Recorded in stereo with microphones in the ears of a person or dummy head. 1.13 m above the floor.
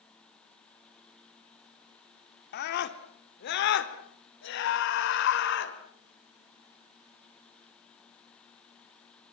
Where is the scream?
60° left (ahead or behind), 2.5 m; by 5.8 s 70° left (ahead or behind), 4 m.